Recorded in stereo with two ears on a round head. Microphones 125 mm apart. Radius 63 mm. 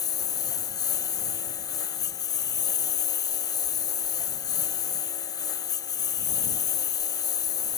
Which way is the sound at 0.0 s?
25° left (ahead or behind).